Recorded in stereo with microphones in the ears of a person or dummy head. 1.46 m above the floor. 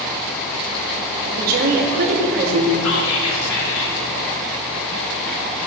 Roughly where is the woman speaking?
Right.